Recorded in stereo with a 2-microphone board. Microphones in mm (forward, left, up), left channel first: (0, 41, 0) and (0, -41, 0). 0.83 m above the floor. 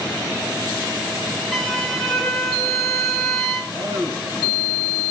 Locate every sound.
1.5 s a violin: 5° left (ahead or behind), 1.9 m
3.7 s a man speaking: 45° right (ahead or behind), 6 m